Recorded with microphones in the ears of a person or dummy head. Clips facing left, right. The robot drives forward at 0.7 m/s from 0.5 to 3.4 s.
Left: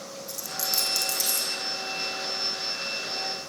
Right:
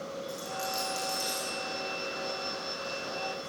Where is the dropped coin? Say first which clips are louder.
Right 2 dB; 65° left (ahead or behind), 5 m; by 1.5 s 60° left (ahead or behind), 5.5 m.